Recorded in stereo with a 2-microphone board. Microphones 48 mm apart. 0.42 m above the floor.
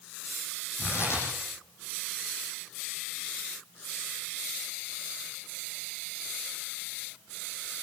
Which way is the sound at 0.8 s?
60° left (ahead or behind).